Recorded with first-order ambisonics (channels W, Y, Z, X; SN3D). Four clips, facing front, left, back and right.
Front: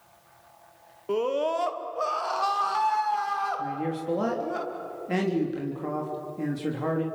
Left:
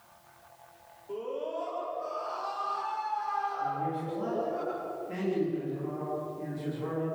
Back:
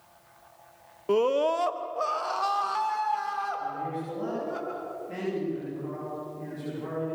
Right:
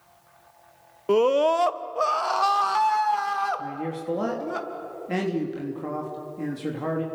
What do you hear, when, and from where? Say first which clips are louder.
1.1 s a scream: right 16 dB, back 2 dB; 105° right, 1.1 m; by 4.6 s 75° right, 4.5 m
3.6 s a man speaking: even, front 2 dB; 45° right, 3.5 m